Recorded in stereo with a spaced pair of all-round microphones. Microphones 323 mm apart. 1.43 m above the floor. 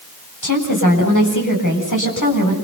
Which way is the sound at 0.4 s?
70° left (ahead or behind).